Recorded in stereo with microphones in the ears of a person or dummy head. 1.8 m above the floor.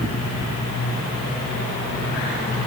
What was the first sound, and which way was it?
Only background noise.